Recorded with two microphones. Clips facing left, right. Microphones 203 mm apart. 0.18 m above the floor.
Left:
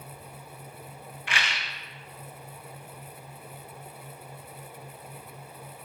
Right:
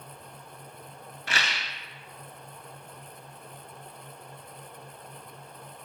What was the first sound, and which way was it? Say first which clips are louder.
A rattle: right 1 dB; 40° right (ahead or behind).